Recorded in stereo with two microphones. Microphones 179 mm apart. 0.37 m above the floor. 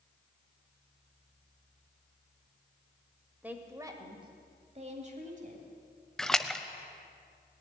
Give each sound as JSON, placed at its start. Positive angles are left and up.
{"t": 3.4, "sound": "a woman speaking", "side_deg": -10, "distance_m": 1.7}
{"t": 6.2, "sound": "a splash", "side_deg": 5, "distance_m": 0.6}